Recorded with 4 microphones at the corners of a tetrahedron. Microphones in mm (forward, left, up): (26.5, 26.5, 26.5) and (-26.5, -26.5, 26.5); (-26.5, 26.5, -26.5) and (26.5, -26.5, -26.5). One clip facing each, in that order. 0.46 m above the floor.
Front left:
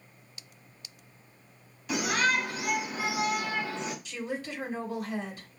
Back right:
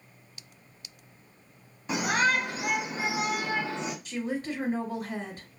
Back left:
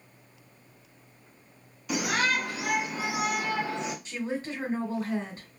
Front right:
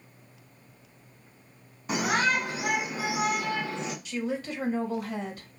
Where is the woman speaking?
175° right, 1.8 m.